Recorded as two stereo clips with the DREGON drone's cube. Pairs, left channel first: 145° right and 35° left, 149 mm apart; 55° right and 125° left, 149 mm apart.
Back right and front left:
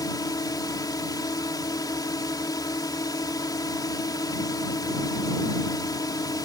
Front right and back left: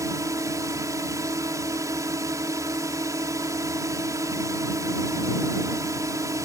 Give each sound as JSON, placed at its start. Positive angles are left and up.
{"t": 0.0, "sound": "a drone", "azimuth_deg": 175}